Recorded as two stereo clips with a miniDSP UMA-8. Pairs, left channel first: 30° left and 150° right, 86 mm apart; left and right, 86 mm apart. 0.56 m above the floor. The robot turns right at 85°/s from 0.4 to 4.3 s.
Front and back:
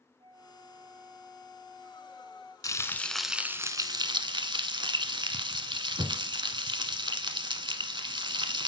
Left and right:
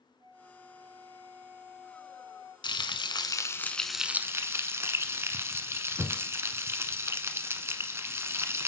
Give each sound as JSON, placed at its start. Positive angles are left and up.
{"t": 0.2, "sound": "a flute", "azimuth_deg": -120, "distance_m": 4.5}
{"t": 2.6, "sound": "frying", "azimuth_deg": 70, "distance_m": 0.9}